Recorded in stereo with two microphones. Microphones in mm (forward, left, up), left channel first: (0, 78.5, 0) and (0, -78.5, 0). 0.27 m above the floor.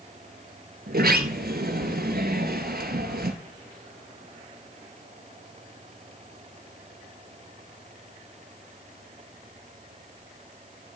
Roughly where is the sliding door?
Right.